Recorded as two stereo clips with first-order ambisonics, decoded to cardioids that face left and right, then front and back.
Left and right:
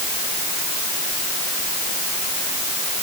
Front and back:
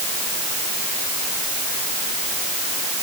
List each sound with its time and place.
Only background noise.